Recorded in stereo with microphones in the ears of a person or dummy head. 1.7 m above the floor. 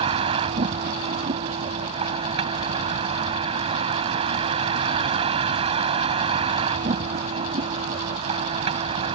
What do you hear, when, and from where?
0.0 s a vehicle: 30° right (ahead or behind)